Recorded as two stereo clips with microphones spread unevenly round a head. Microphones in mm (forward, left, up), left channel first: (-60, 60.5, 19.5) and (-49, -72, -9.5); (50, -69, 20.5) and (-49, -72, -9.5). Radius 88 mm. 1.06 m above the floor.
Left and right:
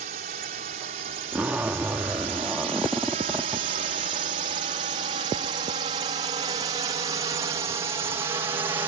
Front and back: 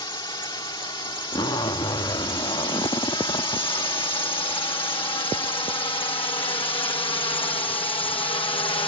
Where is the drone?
45° right; by 8.9 s 25° right.